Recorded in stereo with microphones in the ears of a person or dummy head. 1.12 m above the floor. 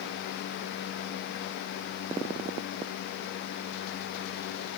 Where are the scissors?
I don't hear scissors.